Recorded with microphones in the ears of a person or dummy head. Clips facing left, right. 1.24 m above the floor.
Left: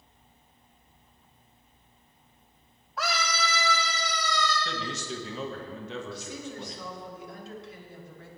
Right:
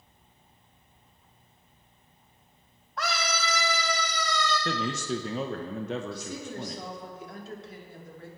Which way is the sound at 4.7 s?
40° right (ahead or behind).